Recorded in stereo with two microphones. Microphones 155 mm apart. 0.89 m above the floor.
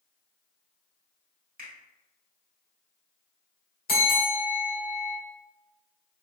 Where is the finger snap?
80° right, 1.3 m.